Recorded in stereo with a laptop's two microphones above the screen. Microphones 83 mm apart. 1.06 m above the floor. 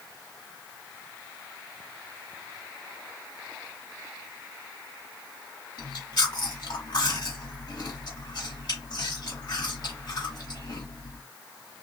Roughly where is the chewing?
Left.